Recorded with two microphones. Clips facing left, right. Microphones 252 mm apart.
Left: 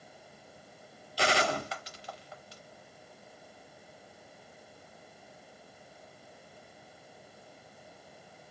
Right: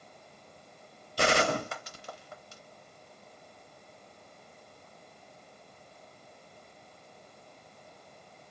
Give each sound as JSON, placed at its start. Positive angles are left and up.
{"t": 1.2, "sound": "a gunshot", "side_deg": -50, "distance_m": 0.6}